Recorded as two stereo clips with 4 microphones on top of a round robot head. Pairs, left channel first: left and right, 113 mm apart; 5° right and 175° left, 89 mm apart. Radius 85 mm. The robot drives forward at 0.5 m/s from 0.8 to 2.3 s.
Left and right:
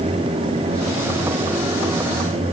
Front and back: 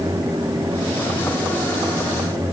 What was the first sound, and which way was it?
Only background noise.